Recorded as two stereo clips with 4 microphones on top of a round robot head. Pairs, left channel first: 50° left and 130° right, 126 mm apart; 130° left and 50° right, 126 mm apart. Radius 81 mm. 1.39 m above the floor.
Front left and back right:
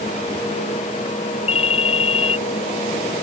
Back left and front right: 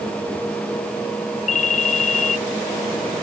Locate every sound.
1.5 s a ringtone: 95° left